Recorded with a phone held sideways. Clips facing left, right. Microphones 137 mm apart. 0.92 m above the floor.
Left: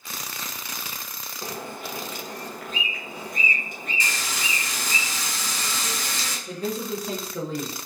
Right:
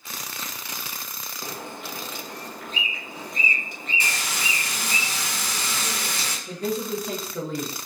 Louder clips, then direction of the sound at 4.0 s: Right 1 dB; 60° right (ahead or behind).